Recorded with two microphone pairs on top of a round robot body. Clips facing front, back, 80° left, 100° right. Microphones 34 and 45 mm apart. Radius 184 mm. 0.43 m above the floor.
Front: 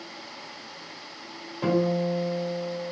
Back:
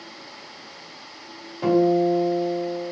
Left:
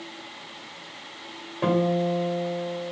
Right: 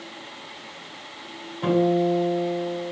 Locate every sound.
1.6 s a guitar: 95° left, 2.5 m